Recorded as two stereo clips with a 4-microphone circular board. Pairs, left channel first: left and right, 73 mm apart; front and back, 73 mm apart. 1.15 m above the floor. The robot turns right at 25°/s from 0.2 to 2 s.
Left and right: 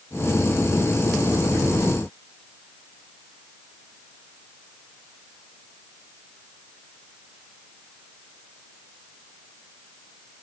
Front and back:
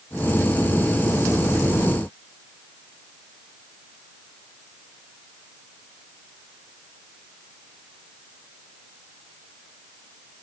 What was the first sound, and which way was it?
Only background noise.